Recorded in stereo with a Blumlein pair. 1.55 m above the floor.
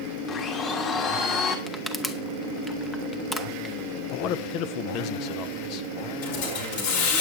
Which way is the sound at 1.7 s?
10° left.